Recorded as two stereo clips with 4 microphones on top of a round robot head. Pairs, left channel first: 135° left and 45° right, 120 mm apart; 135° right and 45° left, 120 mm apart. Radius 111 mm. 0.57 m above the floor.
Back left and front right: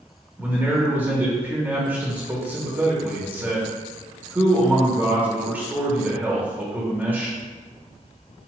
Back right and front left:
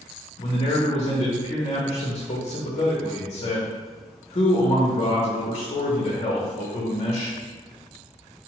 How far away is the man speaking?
About 0.9 m.